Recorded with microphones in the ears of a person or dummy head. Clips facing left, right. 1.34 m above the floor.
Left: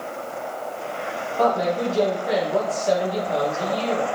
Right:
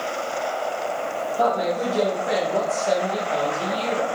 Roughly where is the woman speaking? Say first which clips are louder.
Left 2 dB; centre.